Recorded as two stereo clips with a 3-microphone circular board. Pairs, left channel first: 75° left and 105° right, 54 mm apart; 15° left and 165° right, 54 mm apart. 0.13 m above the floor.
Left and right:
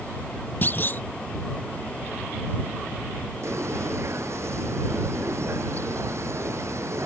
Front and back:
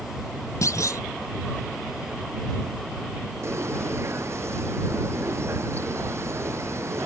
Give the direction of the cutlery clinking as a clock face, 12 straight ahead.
No cutlery clinking in this recording.